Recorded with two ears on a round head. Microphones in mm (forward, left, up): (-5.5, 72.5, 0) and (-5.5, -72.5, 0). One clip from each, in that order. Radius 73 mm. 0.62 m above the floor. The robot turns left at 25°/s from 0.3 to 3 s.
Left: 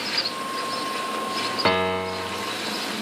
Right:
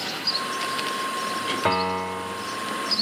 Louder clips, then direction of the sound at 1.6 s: Left 2 dB; 75° left (ahead or behind).